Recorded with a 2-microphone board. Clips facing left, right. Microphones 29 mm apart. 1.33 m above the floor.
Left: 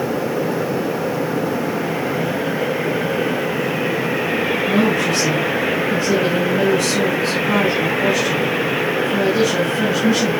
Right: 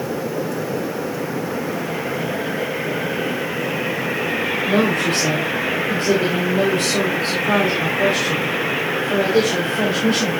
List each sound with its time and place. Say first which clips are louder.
4.7 s a woman speaking: even; 55° right (ahead or behind), 3.5 m